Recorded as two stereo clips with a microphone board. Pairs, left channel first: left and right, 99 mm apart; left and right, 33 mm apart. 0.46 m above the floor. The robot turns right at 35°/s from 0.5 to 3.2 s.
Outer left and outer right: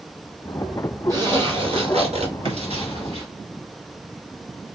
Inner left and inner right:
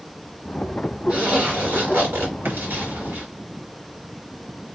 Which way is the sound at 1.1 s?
145° right.